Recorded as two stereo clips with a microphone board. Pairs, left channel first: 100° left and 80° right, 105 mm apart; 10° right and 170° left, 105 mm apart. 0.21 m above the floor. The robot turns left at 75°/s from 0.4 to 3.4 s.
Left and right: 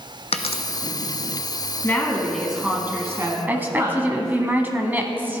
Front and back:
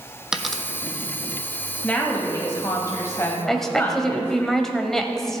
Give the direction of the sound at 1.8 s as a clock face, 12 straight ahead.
10 o'clock.